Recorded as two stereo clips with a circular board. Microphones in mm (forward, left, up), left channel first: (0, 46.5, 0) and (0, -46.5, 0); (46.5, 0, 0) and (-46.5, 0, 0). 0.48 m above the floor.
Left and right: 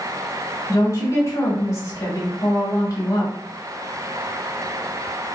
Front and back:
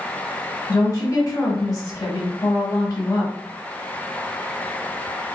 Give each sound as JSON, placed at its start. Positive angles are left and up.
{"t": 0.7, "sound": "a woman speaking", "azimuth_deg": 40, "distance_m": 1.3}